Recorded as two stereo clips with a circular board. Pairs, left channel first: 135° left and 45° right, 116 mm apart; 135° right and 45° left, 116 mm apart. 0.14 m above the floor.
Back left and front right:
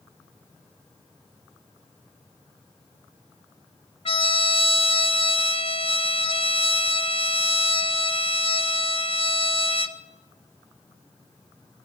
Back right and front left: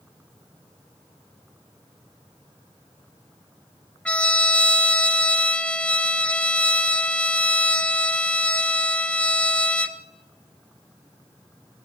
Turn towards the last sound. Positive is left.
turn(degrees=150)